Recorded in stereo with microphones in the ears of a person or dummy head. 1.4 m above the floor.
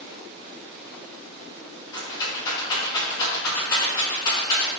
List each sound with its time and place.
1.9 s a rattle: 25° left (ahead or behind), 1.9 m